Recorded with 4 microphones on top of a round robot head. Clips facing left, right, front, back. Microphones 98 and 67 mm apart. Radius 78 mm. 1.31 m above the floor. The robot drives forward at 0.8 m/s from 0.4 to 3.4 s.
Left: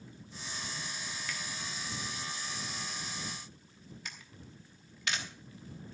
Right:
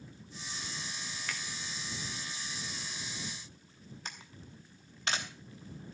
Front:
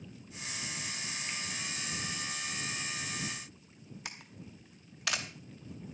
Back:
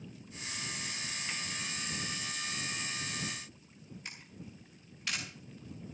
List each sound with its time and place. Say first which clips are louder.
1.3 s a finger snap: right 2 dB, back 1 dB; 130° right, 0.8 m; by 1.4 s 135° right, 0.9 m
4.0 s a camera shutter: right 4 dB, front 2 dB; 25° right, 0.9 m